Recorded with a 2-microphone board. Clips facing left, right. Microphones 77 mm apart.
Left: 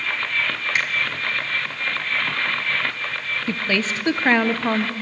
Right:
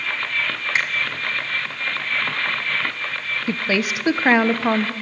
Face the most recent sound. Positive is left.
turn(degrees=-10)  # may be behind; listen again after turning